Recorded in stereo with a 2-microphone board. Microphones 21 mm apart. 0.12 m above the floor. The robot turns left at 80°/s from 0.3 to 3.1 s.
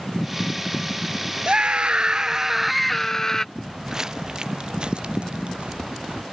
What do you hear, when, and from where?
1.5 s a scream: 70° right; by 3.5 s 160° left
3.5 s footsteps: 15° right (ahead or behind); by 6.2 s 55° right (ahead or behind)